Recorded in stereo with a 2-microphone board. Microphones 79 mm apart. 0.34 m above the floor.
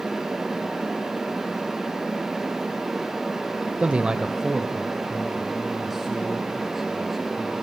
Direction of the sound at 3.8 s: 15° right (ahead or behind).